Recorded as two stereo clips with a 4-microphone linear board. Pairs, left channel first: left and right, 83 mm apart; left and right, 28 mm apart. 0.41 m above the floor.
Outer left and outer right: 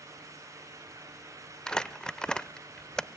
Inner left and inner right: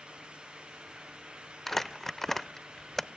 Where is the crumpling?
10° left (ahead or behind), 0.6 m.